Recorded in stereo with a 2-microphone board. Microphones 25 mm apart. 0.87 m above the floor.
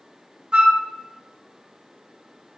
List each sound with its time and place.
0.5 s a flute: 45° right (ahead or behind), 0.6 m